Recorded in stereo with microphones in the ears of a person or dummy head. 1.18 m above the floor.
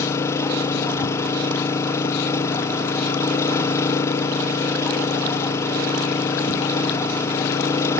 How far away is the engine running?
About 0.7 m.